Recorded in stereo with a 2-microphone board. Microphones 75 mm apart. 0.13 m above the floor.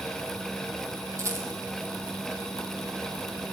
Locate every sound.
1.2 s a rattle: 40° right (ahead or behind), 1.1 m